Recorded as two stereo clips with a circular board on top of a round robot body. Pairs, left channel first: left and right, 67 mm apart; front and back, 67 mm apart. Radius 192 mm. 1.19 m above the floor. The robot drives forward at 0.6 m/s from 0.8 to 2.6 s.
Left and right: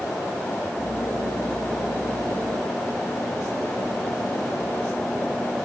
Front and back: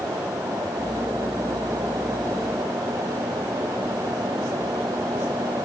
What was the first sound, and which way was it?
Only background noise.